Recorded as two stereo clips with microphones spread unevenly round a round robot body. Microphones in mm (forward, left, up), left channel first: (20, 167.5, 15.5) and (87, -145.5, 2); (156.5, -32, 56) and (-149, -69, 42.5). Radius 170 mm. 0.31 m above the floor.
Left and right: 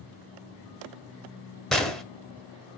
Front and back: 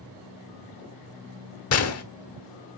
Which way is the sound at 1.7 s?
10° left.